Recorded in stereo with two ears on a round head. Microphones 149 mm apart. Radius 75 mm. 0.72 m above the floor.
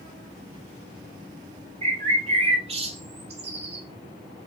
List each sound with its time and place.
1.8 s a bird: 35° right (ahead or behind), 1.0 m